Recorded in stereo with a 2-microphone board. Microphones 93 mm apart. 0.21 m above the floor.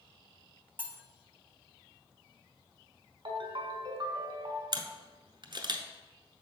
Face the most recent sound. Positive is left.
turn(degrees=-55)  # may be behind; listen again after turning